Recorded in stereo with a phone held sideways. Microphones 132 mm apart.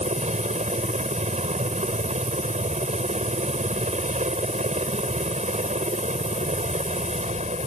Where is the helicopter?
60° right (ahead or behind).